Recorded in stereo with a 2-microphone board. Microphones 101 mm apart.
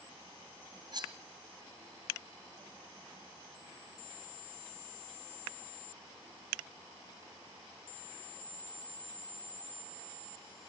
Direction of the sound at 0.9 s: 45° right (ahead or behind).